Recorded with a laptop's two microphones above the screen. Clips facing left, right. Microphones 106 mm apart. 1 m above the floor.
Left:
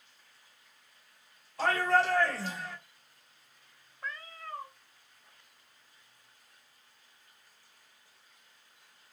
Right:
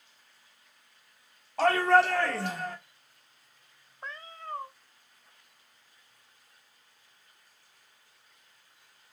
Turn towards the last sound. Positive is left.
turn(degrees=-30)  # may be behind; listen again after turning